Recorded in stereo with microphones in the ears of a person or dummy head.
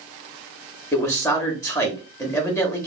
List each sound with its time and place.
0.9 s a man speaking: 15° left (ahead or behind), 0.8 m